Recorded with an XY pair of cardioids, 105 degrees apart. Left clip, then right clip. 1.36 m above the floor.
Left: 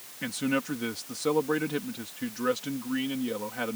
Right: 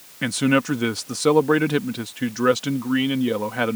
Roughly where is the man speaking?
Ahead right.